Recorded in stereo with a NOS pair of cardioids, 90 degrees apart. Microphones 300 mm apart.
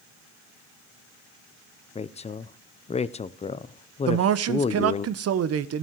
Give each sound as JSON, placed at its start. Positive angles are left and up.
{"t": 1.9, "sound": "a woman speaking", "azimuth_deg": 20, "distance_m": 0.7}
{"t": 4.1, "sound": "a man speaking", "azimuth_deg": -55, "distance_m": 0.9}